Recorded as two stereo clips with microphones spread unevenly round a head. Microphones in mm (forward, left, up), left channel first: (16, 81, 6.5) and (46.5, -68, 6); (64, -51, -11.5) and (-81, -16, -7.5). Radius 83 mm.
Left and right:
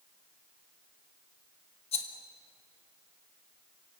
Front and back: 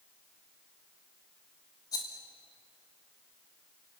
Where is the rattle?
55° left, 2 m.